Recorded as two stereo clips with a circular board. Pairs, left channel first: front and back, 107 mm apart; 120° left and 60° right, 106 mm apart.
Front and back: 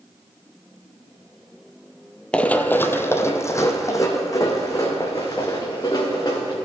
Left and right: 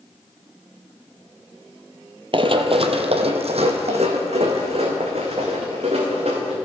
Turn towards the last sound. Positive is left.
turn(degrees=-55)